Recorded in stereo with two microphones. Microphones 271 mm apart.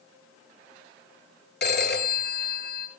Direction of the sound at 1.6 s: 40° left (ahead or behind).